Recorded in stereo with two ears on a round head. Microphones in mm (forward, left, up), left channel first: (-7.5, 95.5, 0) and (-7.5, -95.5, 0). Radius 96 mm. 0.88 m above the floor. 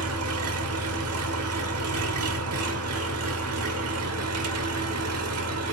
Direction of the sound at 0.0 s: 80° right.